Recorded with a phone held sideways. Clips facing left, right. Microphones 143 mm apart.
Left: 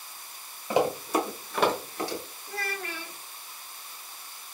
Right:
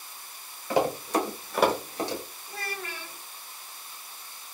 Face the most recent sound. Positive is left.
turn(degrees=75)  # may be behind; listen again after turning